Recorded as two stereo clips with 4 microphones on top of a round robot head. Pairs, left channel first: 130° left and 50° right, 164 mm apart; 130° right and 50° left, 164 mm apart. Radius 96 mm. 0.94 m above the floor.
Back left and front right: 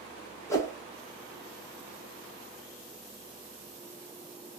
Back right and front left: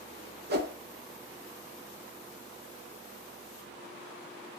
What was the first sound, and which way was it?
A whoosh, 60° left.